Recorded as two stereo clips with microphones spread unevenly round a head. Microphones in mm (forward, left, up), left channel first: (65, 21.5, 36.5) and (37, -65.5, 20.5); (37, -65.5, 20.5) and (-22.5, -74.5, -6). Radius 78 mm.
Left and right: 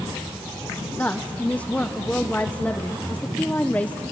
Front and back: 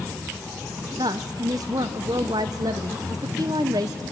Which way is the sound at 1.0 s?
140° left.